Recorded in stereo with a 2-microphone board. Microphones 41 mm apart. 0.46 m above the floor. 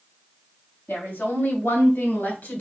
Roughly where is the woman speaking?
Left.